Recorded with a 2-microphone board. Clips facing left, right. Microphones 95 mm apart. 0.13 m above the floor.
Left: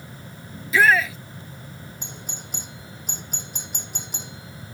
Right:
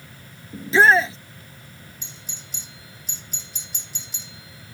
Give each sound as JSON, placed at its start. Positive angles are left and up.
{"t": 0.5, "sound": "a shout", "side_deg": -30}
{"t": 2.0, "sound": "a doorbell", "side_deg": 60}